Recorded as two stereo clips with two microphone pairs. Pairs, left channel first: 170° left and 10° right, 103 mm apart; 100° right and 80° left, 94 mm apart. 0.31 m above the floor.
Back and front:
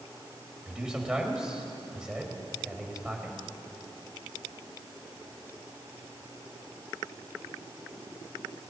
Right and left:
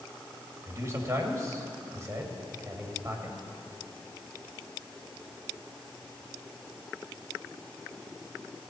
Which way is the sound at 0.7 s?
65° left.